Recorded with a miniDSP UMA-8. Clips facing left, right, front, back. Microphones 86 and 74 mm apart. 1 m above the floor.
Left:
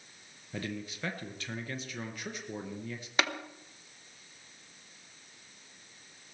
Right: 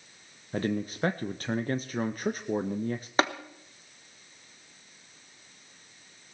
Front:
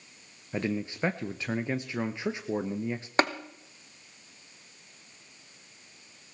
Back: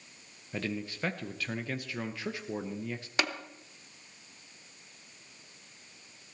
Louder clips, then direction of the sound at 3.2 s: Right 5 dB, front 7 dB; 40° right.